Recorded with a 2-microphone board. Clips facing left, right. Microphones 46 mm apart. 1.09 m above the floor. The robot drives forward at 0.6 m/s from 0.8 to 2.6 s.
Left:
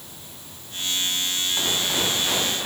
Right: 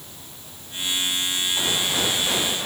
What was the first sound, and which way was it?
Only background noise.